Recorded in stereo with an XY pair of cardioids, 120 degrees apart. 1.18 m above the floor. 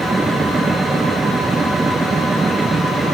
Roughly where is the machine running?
Ahead.